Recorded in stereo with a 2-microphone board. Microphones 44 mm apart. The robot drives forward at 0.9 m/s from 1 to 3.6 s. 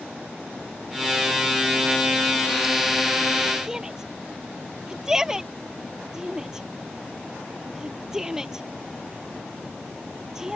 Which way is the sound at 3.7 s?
15° right (ahead or behind).